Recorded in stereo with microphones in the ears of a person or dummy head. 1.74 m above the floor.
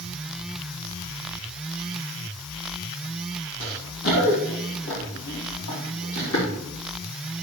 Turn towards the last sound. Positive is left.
turn(degrees=70)  # may be behind; listen again after turning